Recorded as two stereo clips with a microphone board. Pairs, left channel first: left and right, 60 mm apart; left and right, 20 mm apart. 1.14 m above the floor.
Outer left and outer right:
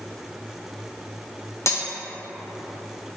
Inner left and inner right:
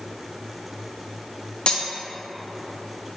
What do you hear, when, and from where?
1.7 s cutlery clinking: 55° left (ahead or behind), 0.5 m